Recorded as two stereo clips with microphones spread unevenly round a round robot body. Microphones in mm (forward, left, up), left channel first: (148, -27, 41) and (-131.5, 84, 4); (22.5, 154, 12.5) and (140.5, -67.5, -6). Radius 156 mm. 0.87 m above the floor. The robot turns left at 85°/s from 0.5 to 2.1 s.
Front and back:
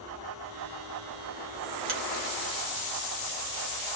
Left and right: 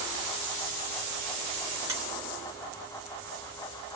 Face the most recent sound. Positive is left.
turn(degrees=-160)